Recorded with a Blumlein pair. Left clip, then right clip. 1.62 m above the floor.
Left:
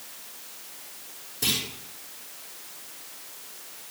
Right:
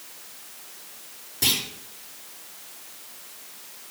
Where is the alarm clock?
I don't hear an alarm clock.